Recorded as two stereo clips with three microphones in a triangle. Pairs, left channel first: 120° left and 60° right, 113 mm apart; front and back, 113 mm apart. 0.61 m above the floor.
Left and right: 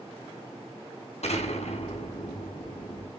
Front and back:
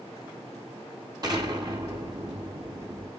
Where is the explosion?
125° left, 4.5 m.